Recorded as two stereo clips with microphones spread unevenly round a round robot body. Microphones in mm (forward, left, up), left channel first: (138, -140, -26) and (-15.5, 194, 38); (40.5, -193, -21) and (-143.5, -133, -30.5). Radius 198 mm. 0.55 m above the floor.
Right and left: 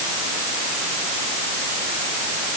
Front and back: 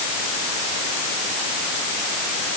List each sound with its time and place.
Only background noise.